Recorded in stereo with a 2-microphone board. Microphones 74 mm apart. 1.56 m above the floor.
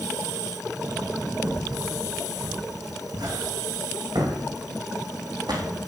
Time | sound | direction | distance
1.4 | footsteps | 60° right (ahead or behind) | 6 m